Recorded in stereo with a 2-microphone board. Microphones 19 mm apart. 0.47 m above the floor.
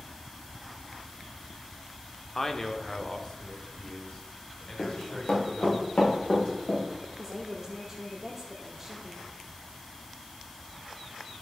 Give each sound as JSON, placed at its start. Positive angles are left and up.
{"t": 2.4, "sound": "a man speaking", "side_deg": 25, "distance_m": 0.8}
{"t": 4.8, "sound": "running footsteps", "side_deg": 70, "distance_m": 4.0}
{"t": 7.2, "sound": "a woman speaking", "side_deg": -15, "distance_m": 1.0}